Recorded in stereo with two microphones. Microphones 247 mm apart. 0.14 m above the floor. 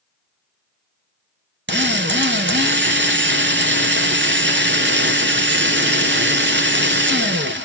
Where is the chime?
No chime in this recording.